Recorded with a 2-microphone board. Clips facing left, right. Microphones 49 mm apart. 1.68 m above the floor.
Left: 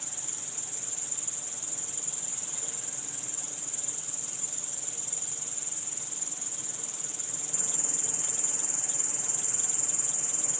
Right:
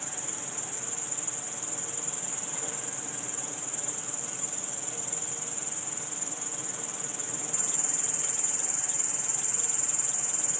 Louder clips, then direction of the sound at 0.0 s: Right 6 dB; 35° right (ahead or behind).